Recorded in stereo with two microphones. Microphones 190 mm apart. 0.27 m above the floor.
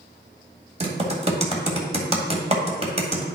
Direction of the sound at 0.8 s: 35° right (ahead or behind).